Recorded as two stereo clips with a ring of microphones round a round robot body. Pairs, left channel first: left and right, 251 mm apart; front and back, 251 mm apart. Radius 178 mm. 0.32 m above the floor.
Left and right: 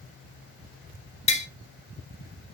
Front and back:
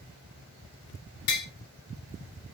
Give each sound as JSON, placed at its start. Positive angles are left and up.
{"t": 1.3, "sound": "tapping", "azimuth_deg": 20, "distance_m": 0.7}